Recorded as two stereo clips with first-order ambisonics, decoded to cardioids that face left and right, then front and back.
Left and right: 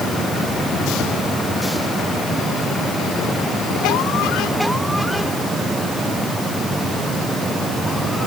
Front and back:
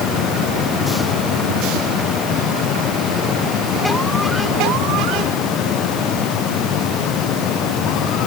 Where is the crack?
I don't hear a crack.